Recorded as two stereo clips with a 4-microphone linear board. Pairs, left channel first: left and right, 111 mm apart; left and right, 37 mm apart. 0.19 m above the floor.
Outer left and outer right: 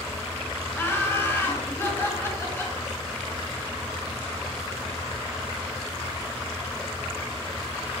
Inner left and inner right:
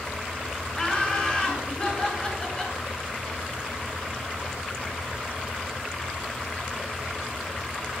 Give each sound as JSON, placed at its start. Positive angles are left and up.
{"t": 0.8, "sound": "laughter", "side_deg": 20, "distance_m": 3.0}